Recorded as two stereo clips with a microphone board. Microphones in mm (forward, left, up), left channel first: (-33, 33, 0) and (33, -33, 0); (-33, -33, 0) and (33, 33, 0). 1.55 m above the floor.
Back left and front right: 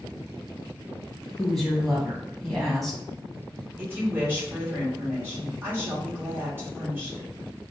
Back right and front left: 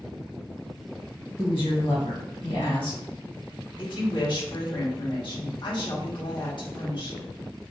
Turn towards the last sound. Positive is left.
turn(degrees=-110)